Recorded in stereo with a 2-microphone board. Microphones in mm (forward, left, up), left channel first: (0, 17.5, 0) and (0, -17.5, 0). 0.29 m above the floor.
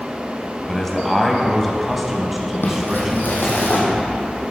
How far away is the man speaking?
About 2 m.